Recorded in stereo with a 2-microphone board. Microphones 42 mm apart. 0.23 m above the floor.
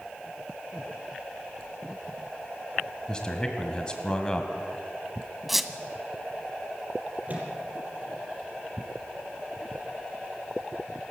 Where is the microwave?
35° right (ahead or behind), 5 m.